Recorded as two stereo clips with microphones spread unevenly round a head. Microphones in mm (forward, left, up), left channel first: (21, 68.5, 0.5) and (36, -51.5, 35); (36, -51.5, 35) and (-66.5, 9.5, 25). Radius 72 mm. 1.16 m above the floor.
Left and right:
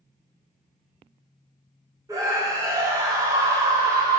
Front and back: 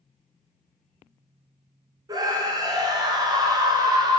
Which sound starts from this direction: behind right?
A scream, at 2.1 s.